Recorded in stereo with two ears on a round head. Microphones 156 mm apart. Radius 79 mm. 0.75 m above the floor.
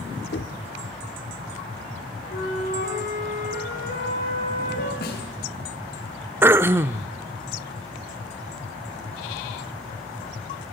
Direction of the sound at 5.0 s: 60° left (ahead or behind).